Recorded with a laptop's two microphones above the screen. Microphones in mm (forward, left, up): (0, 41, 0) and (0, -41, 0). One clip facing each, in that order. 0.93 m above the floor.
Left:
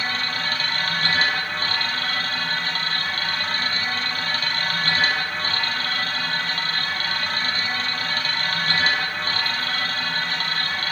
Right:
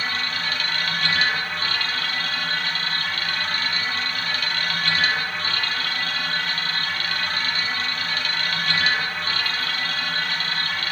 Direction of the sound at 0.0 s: 35° left (ahead or behind).